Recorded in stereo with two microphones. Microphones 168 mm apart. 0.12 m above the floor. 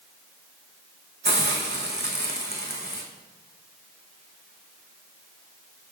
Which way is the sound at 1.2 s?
75° right (ahead or behind).